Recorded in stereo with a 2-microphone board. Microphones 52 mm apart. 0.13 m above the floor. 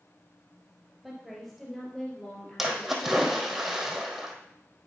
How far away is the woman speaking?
About 2 m.